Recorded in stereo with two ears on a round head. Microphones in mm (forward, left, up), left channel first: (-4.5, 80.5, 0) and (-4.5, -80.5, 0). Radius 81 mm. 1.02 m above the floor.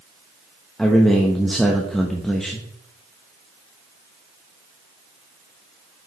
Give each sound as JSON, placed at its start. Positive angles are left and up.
{"t": 0.8, "sound": "a man speaking", "side_deg": 5, "distance_m": 0.8}